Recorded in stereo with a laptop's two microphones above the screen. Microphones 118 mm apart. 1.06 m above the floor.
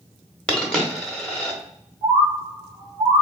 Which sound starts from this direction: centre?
A dropped coin, at 0.5 s.